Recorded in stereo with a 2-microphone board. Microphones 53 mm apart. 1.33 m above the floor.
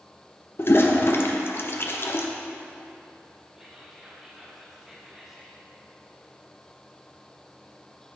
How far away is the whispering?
About 1.6 m.